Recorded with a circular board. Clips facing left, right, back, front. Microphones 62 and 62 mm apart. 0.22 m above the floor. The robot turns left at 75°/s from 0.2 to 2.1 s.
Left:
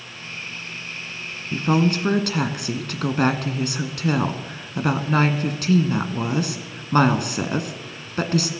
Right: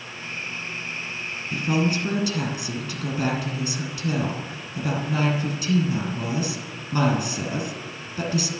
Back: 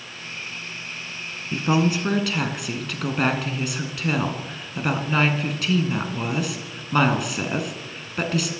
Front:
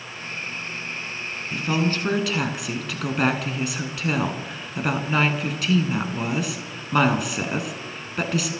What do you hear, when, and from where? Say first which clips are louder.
1.5 s a woman speaking: left 4 dB, back 3 dB; 130° left, 2 m; by 8.5 s 90° left, 2 m